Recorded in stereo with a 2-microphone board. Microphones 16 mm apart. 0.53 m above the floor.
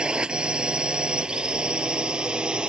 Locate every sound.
0.0 s a drone: 80° right; by 2.7 s 75° right (ahead or behind)